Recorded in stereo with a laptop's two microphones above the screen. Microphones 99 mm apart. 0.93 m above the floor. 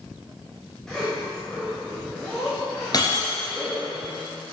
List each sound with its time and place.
0.9 s a zipper: 5° left (ahead or behind), 1.2 m
2.9 s breaking glass: 40° left (ahead or behind), 1.3 m